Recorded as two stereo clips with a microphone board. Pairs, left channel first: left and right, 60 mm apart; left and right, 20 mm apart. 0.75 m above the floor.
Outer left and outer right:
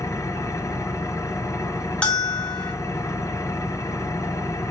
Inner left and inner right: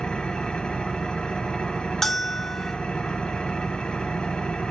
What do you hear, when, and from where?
0.0 s an engine running: 70° left (ahead or behind), 2 m
2.0 s a bell: 15° left (ahead or behind), 1.5 m